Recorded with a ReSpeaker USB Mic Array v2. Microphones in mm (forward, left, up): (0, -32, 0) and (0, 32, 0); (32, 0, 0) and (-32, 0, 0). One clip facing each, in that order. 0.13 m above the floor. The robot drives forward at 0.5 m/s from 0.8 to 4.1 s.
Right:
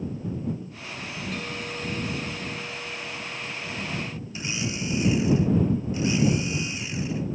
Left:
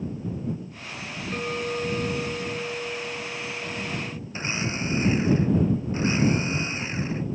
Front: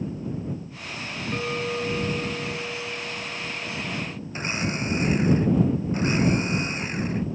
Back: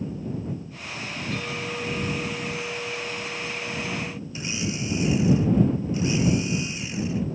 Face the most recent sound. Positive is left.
turn(degrees=45)